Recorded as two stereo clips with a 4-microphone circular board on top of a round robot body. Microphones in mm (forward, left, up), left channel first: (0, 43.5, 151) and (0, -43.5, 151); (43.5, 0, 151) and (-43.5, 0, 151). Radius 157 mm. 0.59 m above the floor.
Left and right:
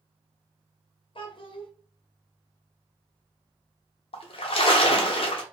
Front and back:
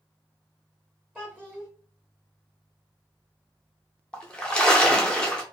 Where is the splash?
80° left, 0.6 m.